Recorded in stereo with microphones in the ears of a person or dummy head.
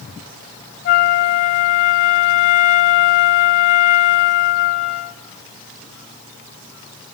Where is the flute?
35° left (ahead or behind), 1.0 m.